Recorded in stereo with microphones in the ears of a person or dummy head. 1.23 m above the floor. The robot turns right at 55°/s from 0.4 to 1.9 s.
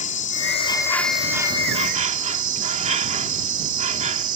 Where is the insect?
140° left; by 4.4 s 135° right.